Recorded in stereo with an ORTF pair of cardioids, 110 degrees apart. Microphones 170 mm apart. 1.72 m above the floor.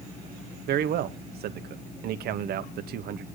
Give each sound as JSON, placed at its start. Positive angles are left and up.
{"t": 0.7, "sound": "a man speaking", "azimuth_deg": -65, "distance_m": 1.1}